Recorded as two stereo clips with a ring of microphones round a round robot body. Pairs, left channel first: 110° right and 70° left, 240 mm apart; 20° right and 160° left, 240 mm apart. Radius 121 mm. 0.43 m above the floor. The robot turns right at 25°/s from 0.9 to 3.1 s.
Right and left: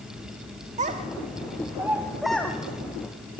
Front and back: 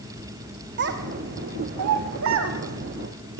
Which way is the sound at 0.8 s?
125° left.